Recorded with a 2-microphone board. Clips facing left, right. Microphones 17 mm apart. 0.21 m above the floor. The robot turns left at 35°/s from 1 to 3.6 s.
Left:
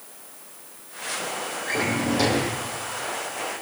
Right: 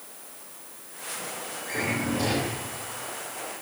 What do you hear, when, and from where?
1.6 s a drawer: 155° left, 5.5 m; by 2.6 s 125° left, 5.5 m